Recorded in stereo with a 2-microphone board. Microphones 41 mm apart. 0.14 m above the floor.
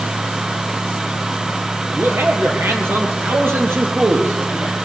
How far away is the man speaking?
About 3 m.